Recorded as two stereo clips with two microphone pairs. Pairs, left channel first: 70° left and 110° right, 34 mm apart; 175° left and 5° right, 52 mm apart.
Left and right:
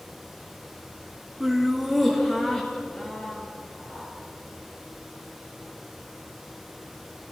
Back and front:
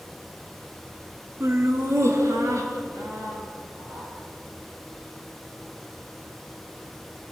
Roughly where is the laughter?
Ahead right.